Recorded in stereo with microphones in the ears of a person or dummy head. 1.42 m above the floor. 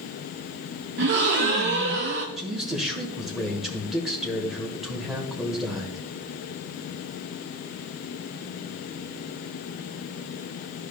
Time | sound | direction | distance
1.0 | a gasp | 40° right (ahead or behind) | 0.8 m
2.4 | a man speaking | centre (ahead or behind) | 1.2 m